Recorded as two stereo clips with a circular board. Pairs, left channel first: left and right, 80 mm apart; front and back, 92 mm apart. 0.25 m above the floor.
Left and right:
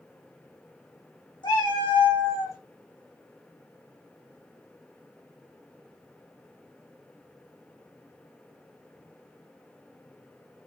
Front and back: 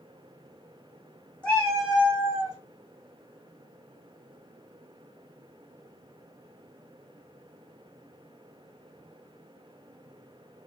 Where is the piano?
No piano in this recording.